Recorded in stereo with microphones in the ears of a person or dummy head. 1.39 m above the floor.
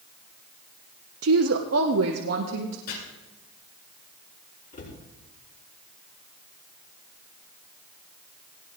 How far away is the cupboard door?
About 5 m.